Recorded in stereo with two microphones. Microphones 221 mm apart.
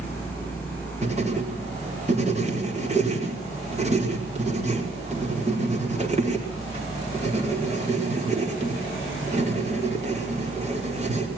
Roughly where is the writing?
Right.